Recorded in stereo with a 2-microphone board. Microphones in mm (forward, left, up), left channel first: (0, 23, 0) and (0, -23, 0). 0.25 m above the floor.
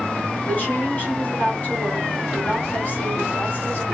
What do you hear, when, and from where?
0.5 s a woman speaking: 35° left (ahead or behind), 1.8 m